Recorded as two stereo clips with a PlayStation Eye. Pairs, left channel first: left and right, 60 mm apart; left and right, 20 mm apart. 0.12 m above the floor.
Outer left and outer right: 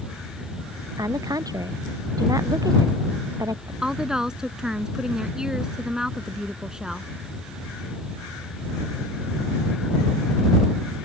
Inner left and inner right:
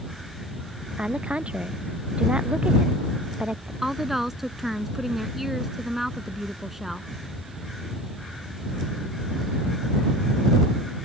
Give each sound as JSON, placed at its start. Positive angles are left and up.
{"t": 1.0, "sound": "a woman speaking", "side_deg": -75}
{"t": 3.8, "sound": "a woman speaking", "side_deg": -10}